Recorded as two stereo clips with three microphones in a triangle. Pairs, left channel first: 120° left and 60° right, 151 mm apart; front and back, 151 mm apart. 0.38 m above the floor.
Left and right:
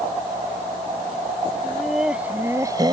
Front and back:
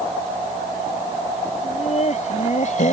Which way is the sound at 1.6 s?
35° left.